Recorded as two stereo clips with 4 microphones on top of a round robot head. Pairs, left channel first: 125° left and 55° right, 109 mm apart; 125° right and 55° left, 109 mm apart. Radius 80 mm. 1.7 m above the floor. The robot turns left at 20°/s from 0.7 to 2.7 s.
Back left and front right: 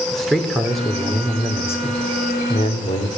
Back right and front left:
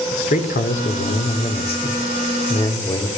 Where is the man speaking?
145° right, 5 m; by 3.1 s 175° left, 5 m.